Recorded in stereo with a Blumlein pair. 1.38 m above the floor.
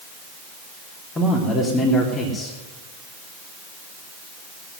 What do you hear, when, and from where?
1.1 s a man speaking: 15° left, 3 m